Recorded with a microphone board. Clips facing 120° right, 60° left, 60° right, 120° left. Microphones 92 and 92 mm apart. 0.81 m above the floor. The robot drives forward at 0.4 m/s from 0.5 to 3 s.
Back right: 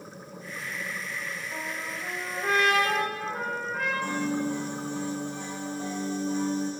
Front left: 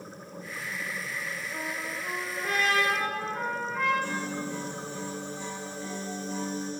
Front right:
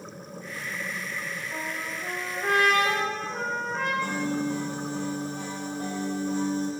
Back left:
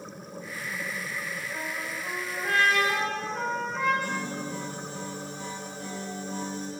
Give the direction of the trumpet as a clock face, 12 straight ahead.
2 o'clock.